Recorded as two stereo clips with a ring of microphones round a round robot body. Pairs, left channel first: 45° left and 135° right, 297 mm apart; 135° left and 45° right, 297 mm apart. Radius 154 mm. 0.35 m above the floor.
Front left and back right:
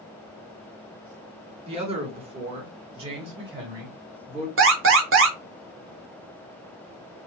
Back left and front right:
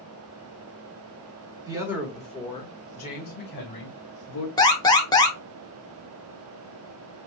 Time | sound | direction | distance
1.7 | a man speaking | 100° right | 1.3 m
4.6 | an alarm | 155° right | 1.0 m